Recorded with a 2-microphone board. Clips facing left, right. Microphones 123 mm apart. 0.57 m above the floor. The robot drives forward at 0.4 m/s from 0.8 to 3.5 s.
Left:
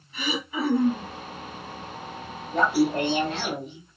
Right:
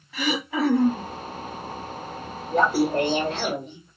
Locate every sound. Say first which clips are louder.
0.1 s throat clearing: right 4 dB; 85° right, 1.3 m; by 1.1 s 80° right, 1.3 m
2.5 s laughter: right 1 dB; 40° right (ahead or behind), 2.0 m; by 4.0 s 35° right (ahead or behind), 2 m